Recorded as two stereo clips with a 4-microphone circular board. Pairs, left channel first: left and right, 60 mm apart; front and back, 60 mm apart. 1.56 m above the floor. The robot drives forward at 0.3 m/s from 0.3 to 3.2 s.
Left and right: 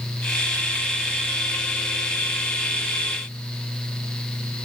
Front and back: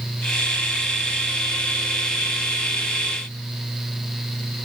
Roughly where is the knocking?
I don't hear knocking.